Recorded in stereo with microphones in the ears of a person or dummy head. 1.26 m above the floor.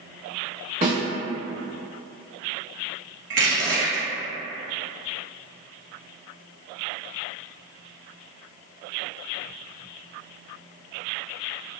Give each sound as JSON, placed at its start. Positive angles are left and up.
{"t": 0.8, "sound": "a snare drum", "side_deg": -30, "distance_m": 1.2}
{"t": 3.3, "sound": "crushing", "side_deg": -55, "distance_m": 0.7}